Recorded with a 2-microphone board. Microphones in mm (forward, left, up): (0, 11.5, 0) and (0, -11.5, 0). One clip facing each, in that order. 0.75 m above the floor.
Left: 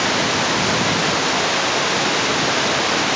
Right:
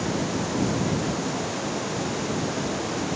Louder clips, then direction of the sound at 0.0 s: Left 9 dB; 50° left (ahead or behind).